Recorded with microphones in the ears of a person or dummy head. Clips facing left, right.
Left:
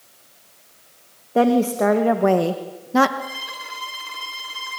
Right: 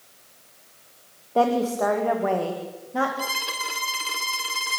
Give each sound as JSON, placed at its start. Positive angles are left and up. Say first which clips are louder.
{"t": 1.4, "sound": "a woman speaking", "louder": "left 4 dB", "side_deg": 20, "distance_m": 2.0}
{"t": 3.2, "sound": "a violin", "louder": "right 2 dB", "side_deg": -50, "distance_m": 2.0}